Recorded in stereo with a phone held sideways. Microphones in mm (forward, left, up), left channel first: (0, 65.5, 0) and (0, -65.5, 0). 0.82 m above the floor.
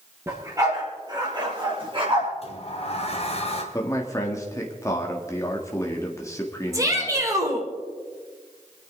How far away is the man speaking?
About 1.7 m.